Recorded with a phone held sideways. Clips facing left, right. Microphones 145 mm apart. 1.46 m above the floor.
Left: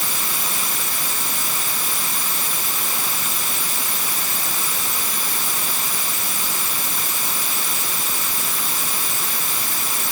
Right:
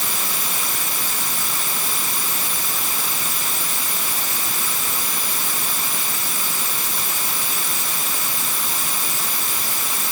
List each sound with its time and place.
Only background noise.